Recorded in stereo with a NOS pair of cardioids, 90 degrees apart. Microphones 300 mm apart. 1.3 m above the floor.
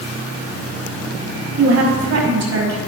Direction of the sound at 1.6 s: 65° right.